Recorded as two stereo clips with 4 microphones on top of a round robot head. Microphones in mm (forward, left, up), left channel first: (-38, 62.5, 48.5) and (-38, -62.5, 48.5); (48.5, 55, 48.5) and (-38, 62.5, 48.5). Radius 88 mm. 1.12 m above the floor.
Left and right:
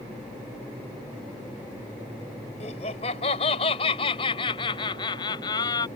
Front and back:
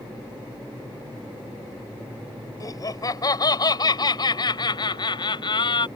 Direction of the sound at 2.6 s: 45° left.